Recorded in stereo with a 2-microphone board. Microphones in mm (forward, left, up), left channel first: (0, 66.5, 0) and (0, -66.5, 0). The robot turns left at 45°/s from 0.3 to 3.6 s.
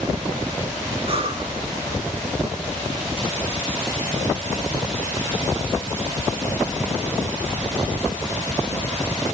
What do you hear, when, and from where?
1.1 s breathing: 45° right (ahead or behind), 0.7 m; by 1.5 s 35° right (ahead or behind), 0.7 m